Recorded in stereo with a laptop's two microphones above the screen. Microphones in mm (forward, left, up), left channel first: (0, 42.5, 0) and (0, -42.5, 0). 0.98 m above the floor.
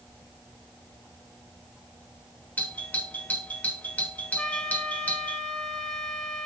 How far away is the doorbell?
About 1.3 m.